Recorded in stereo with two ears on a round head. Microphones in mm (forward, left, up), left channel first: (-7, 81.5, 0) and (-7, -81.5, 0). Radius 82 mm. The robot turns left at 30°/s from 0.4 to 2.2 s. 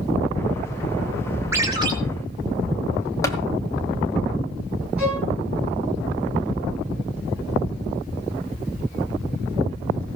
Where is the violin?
5° right (ahead or behind), 9 m.